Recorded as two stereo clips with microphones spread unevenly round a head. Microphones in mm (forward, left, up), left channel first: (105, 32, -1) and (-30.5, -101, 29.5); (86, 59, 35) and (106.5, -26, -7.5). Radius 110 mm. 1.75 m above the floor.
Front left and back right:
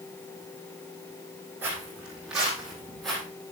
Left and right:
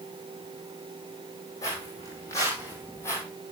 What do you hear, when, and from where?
1.6 s footsteps: 145° left, 3.5 m; by 3.2 s 135° left, 3 m